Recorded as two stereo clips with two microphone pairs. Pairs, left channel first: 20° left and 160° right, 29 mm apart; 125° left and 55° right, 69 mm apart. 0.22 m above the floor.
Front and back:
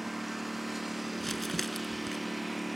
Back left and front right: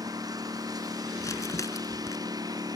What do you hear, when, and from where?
0.0 s a lawn mower: 75° right; by 2.8 s 70° right
1.2 s crumpling: 105° left